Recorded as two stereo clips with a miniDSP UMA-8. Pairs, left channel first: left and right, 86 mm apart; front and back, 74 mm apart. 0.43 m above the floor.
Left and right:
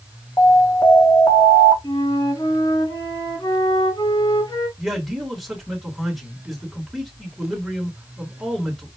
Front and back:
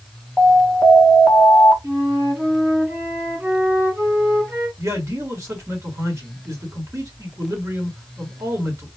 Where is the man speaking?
Straight behind, 1.7 m.